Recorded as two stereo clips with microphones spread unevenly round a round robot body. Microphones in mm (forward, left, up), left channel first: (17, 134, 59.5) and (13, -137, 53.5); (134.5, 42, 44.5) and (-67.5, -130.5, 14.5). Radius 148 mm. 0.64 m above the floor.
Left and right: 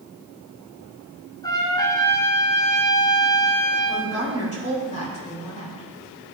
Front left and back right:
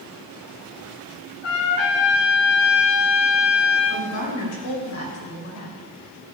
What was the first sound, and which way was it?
A trumpet, 15° left.